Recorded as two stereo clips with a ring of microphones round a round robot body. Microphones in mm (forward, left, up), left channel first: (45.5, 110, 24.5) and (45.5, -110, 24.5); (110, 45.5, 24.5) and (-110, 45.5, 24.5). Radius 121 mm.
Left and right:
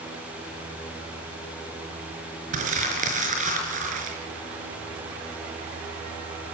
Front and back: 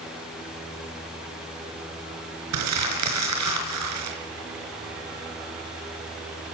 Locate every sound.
2.5 s crumpling: 150° right, 4.5 m